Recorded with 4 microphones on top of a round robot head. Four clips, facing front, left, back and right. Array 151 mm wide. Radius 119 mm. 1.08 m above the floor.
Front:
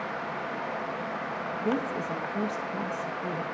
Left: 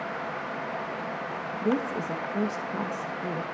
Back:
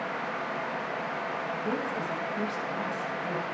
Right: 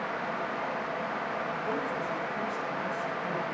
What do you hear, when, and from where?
1.6 s a woman speaking: 65° left, 1.2 m